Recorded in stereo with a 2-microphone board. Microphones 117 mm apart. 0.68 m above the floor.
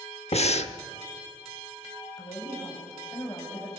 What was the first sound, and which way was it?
Breathing, 65° left (ahead or behind).